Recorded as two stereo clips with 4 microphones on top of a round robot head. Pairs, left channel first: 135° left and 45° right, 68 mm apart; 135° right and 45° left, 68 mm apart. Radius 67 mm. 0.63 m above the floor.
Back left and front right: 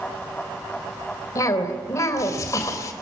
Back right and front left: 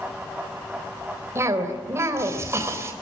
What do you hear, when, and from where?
1.4 s a cough: 95° left, 3 m